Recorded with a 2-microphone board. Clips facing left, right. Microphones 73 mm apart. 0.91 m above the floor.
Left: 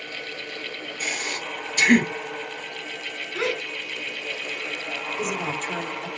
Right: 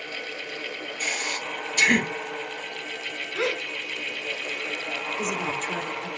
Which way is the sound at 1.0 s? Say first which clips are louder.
Even; 5° left (ahead or behind).